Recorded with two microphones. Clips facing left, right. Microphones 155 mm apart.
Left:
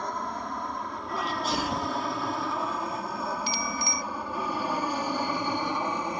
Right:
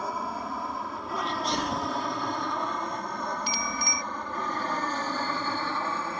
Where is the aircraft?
5° right (ahead or behind); by 6.2 s 15° left (ahead or behind).